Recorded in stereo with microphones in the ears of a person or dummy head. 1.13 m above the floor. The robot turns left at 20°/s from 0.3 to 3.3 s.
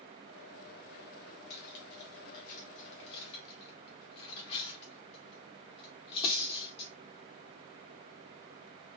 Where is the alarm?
I don't hear an alarm.